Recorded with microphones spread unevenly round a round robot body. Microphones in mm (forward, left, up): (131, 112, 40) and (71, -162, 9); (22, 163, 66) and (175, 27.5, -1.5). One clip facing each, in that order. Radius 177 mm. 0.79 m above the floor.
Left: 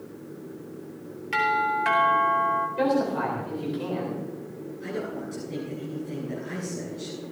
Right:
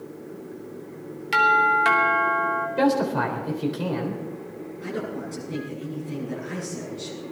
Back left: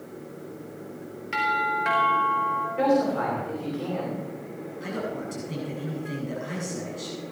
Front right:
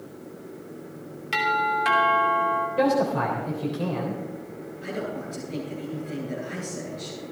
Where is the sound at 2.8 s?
90° right, 3.5 m.